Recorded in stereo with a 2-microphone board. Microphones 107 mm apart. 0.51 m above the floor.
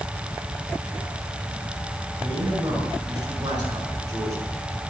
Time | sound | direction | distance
2.2 | a man speaking | 50° right (ahead or behind) | 6.5 m